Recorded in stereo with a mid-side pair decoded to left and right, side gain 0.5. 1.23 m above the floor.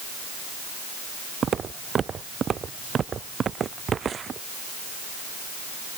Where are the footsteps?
45° right.